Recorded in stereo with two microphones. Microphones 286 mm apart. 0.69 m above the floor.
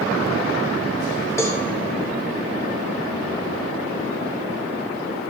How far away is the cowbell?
About 1.1 m.